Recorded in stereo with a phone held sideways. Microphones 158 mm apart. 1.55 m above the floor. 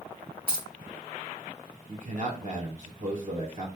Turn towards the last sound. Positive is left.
turn(degrees=-55)  # may be behind; listen again after turning